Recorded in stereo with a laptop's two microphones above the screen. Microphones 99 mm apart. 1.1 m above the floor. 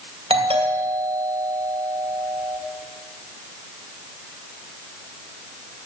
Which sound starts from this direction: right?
A doorbell, at 0.3 s.